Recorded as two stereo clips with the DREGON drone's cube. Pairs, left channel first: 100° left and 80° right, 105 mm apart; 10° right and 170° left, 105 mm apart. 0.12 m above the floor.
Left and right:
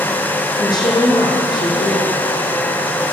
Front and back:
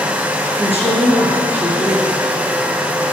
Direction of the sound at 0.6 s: 55° left.